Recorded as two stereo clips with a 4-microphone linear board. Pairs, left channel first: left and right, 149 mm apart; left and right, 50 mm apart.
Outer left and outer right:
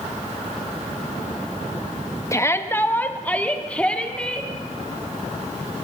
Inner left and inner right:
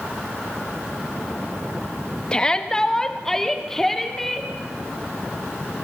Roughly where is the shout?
Left.